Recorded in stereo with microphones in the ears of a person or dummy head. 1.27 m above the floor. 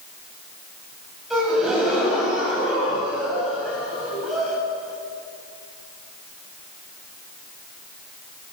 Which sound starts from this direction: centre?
A gasp, at 1.3 s.